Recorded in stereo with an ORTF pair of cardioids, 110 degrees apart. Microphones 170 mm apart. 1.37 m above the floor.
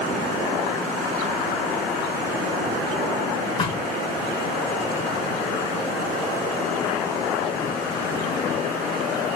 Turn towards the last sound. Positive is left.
turn(degrees=30)